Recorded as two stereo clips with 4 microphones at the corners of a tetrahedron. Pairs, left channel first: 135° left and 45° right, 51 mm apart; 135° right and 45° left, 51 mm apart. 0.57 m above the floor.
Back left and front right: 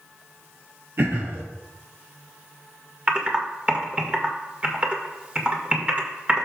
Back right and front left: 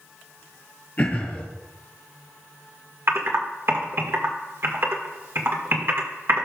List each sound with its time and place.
1.0 s throat clearing: 85° right, 3 m
3.1 s typing on a keyboard: 15° left, 1.7 m